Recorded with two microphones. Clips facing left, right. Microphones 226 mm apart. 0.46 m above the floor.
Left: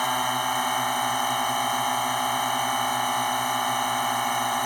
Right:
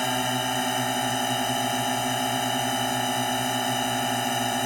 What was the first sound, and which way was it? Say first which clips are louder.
A drone: right 3 dB; 25° right (ahead or behind).